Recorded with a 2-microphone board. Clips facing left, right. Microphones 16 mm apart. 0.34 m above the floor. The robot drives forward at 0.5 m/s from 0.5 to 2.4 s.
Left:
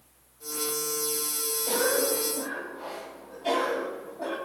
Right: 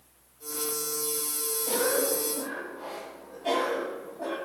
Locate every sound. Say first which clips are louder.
1.7 s a cough: left 1 dB; 30° left (ahead or behind), 1.5 m; by 4.4 s 25° left (ahead or behind), 1.8 m